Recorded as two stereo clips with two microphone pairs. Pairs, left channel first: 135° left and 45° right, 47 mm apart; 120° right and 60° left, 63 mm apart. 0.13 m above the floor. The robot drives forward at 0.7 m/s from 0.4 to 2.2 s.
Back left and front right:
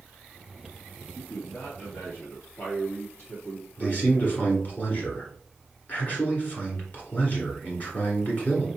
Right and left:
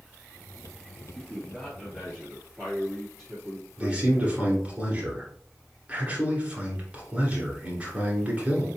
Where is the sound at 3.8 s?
110° left, 1.6 m.